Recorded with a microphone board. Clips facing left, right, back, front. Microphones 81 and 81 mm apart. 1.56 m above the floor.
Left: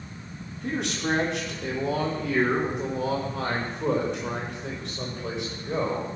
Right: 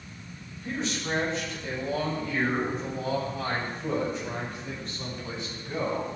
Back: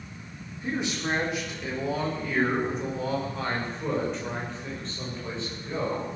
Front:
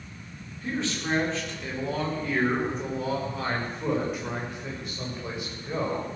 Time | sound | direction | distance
0.6 | a man speaking | 110° left | 5.5 m